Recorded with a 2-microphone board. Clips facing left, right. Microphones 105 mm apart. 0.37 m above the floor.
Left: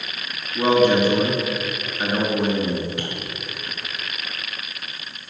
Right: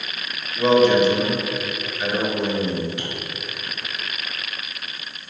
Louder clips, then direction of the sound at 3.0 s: Left 2 dB; 50° left (ahead or behind).